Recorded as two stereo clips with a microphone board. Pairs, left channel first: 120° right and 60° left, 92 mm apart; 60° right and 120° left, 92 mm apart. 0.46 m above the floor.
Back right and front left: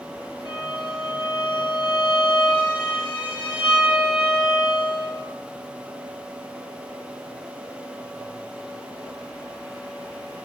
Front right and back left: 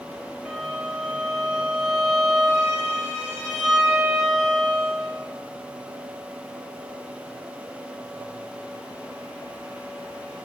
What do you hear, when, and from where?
0.5 s a violin: 145° right, 1.6 m